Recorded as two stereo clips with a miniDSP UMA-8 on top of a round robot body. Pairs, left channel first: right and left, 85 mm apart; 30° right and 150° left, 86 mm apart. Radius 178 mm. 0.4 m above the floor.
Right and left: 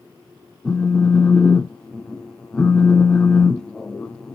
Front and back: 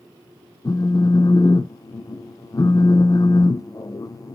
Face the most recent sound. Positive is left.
turn(degrees=-15)